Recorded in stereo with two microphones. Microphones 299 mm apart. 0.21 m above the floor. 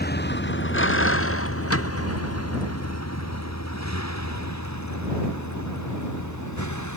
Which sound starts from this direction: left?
A vehicle, at 0.0 s.